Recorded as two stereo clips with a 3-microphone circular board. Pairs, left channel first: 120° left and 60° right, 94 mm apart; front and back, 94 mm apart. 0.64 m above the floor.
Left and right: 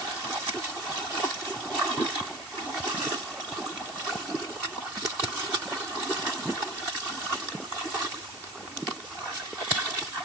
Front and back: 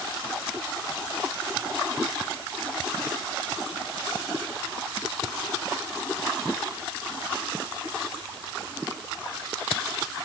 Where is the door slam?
I don't hear a door slam.